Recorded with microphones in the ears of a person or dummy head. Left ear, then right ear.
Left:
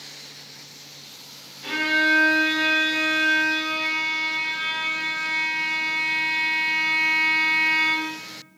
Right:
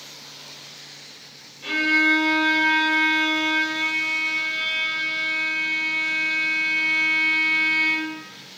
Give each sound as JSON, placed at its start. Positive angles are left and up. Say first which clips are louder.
{"t": 1.6, "sound": "a violin", "louder": "right 2 dB", "side_deg": -5, "distance_m": 1.1}